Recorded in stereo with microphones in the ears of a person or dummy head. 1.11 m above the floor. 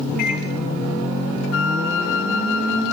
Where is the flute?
80° left, 0.9 m.